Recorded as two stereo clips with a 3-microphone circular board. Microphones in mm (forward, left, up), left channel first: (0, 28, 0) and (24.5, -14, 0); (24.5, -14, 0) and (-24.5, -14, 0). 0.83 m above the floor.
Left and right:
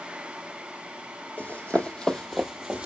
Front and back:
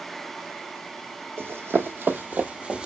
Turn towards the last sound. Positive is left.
turn(degrees=-120)